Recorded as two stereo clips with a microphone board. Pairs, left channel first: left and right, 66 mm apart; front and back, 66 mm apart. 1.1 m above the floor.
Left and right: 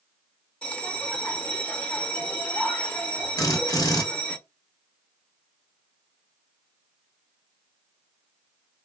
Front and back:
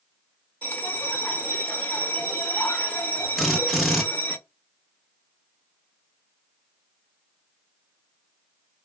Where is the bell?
40° left, 0.9 m.